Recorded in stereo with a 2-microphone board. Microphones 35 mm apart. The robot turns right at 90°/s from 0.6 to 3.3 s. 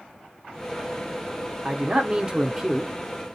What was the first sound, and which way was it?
A man speaking, 100° right.